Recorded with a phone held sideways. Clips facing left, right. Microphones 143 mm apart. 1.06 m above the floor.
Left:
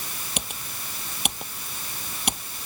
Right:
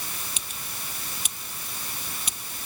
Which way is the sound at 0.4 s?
65° left (ahead or behind).